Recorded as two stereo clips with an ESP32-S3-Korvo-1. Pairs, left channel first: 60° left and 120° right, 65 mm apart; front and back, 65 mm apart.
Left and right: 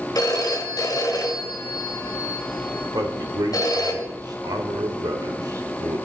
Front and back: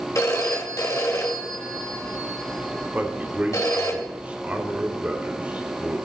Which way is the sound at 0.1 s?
35° left.